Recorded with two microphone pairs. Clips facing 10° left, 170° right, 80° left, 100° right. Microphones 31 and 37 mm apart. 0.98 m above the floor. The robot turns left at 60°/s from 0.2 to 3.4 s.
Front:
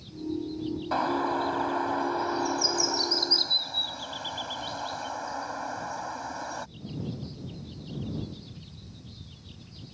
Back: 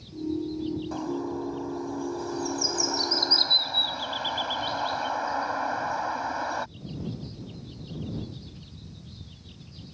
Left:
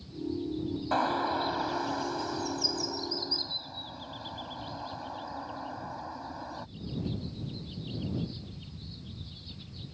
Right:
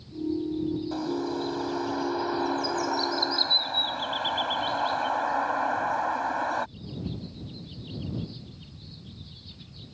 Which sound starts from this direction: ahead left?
A bird, at 0.9 s.